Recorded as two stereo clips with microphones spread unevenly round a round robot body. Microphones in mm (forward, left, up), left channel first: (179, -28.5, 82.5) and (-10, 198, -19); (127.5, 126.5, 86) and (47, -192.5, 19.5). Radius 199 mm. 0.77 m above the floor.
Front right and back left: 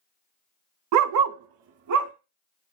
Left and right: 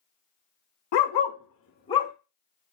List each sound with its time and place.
0.9 s a dog barking: 85° left, 0.6 m; by 2.1 s 160° left, 0.7 m